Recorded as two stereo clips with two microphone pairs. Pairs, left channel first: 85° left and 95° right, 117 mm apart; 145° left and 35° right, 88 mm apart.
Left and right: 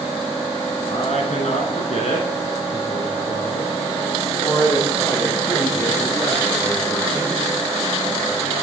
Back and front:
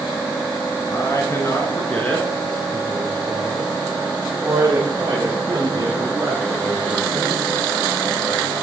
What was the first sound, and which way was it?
A man speaking, 105° left.